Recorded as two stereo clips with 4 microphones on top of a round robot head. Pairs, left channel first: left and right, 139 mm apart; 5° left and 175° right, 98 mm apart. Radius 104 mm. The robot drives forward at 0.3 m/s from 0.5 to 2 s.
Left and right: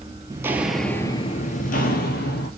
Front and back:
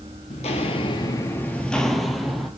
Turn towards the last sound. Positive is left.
turn(degrees=95)